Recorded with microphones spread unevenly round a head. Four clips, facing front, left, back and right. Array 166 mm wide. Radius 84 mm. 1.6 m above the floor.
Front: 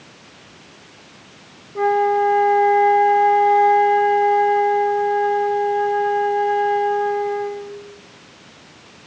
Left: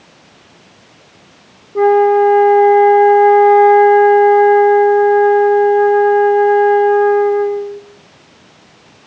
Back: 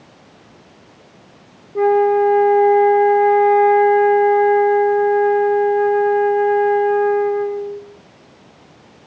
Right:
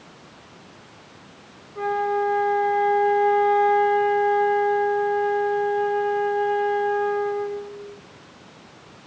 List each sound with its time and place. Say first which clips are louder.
1.8 s a flute: left 14 dB, back 3 dB; 105° left, 1.1 m